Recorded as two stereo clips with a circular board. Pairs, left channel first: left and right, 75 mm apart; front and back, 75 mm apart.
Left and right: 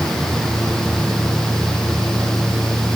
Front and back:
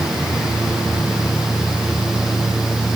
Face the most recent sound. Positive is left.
No sound to turn to.